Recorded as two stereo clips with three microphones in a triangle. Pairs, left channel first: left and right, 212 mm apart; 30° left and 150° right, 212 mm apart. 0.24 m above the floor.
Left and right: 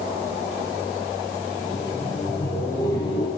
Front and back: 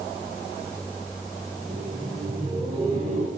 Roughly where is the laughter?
Behind.